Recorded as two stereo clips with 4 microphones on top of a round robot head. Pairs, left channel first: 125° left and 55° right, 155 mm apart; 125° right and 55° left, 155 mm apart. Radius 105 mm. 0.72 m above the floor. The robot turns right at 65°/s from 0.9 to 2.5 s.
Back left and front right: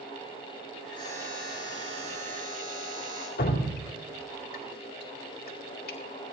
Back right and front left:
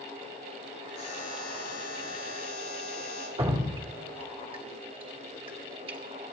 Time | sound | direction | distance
1.0 | a buzzer | 175° right | 8.5 m
3.4 | dripping | 110° left | 2 m